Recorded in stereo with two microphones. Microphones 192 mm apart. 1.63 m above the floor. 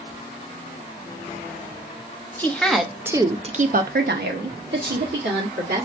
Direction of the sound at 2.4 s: 10° left (ahead or behind).